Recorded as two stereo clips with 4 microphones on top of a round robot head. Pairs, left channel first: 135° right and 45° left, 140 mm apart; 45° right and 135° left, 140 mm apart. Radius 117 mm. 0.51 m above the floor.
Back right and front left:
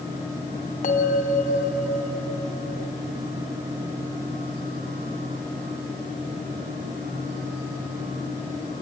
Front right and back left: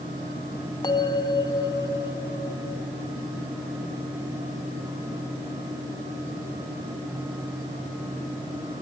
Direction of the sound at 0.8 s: 105° right.